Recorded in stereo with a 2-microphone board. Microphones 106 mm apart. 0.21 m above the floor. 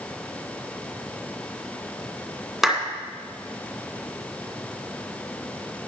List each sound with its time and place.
2.6 s a clap: 5° right (ahead or behind), 1.9 m